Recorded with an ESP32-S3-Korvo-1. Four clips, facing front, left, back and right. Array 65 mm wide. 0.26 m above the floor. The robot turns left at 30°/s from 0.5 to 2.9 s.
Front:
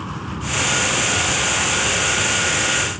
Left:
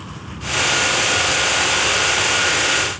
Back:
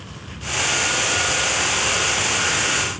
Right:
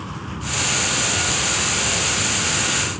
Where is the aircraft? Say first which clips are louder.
Right 1 dB, front 8 dB; 20° right; by 3.0 s 90° right.